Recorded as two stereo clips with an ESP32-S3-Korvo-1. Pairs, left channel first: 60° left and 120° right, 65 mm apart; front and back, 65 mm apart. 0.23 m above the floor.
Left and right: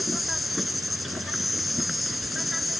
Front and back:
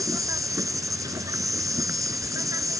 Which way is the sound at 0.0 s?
150° left.